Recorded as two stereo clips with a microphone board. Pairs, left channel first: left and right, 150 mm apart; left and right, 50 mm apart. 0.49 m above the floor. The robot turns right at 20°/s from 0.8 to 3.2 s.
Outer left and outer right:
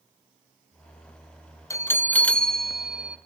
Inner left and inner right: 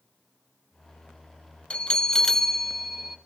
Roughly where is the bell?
Centre.